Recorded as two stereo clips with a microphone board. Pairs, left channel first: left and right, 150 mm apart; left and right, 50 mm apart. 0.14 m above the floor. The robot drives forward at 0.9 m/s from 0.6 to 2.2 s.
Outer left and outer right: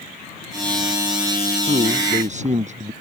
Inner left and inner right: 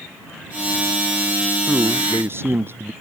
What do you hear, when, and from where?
1.7 s a man speaking: 50° right (ahead or behind)